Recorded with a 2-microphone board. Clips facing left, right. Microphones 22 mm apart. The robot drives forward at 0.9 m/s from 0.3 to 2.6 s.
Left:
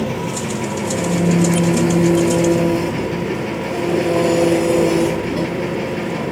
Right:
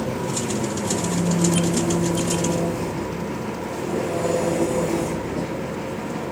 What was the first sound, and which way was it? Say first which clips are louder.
An engine running: left 3 dB; 55° left (ahead or behind).